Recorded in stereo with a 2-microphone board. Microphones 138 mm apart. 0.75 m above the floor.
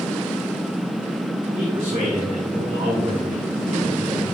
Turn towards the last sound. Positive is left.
turn(degrees=-75)  # may be behind; listen again after turning